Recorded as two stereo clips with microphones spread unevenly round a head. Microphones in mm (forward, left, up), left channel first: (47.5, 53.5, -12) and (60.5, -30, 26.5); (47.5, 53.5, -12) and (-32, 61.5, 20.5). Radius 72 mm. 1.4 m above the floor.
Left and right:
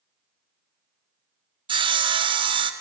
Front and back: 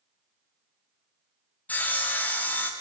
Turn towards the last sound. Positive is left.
turn(degrees=-45)